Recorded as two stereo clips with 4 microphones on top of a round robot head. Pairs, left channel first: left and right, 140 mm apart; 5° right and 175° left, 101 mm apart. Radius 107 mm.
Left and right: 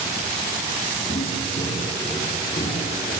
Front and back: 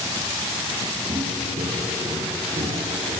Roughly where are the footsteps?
Behind left.